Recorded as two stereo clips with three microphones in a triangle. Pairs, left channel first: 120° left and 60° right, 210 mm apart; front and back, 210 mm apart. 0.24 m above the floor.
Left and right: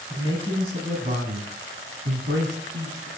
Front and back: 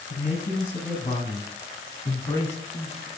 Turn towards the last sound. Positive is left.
turn(degrees=-80)